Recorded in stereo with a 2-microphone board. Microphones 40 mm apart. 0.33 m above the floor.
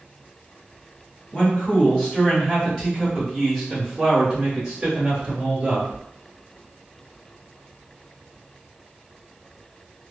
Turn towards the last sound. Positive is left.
turn(degrees=-20)  # may be behind; listen again after turning